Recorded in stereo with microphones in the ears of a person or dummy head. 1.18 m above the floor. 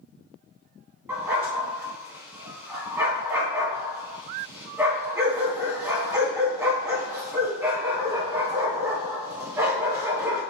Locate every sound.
1.1 s a dog barking: 10° right (ahead or behind), 2.5 m